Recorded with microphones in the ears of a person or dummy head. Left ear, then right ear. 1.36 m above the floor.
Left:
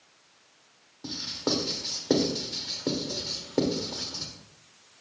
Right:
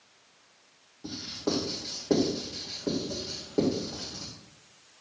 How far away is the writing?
About 2.5 m.